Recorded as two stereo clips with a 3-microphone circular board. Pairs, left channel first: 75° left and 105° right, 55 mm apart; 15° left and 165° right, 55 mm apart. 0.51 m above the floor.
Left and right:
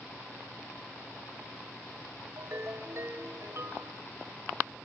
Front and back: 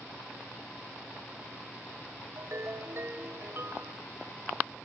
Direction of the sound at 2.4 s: 130° right.